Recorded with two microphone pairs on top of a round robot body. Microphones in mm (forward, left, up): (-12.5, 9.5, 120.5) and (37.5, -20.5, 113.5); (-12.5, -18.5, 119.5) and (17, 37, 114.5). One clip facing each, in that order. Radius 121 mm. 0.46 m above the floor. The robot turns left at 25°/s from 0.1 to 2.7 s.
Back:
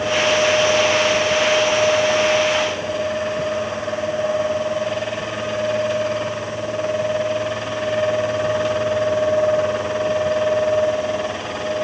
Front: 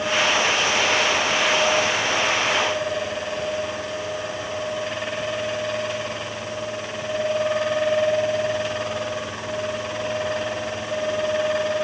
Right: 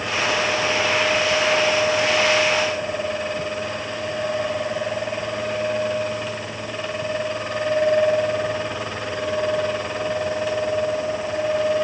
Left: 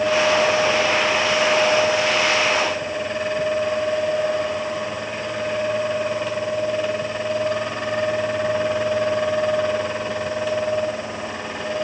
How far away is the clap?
I don't hear a clap.